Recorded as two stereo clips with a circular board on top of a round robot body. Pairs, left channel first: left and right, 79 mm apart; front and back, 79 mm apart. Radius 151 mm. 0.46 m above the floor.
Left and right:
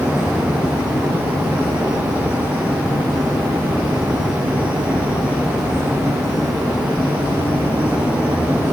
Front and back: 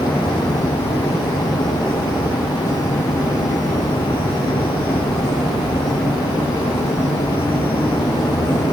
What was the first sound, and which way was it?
Only background noise.